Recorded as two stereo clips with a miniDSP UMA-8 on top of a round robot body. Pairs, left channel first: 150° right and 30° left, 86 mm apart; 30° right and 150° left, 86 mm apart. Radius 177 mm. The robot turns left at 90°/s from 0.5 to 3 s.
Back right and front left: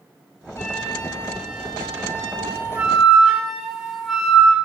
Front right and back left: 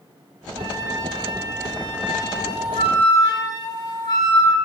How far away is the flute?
About 5.5 m.